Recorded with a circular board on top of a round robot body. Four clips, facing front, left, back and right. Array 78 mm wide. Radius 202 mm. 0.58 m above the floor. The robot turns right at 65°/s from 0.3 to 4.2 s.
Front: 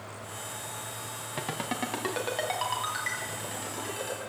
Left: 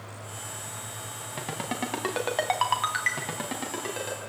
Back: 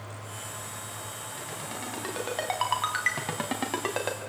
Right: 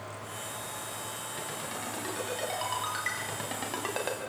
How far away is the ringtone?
About 3 m.